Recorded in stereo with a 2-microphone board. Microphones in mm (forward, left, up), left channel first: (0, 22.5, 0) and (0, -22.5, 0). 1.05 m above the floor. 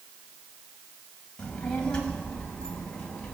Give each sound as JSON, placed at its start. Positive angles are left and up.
{"t": 1.4, "sound": "a child speaking", "side_deg": 15, "distance_m": 4.0}